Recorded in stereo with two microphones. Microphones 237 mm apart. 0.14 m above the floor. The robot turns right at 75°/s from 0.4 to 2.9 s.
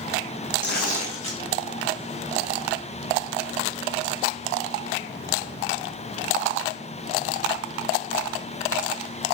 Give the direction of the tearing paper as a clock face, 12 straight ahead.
8 o'clock.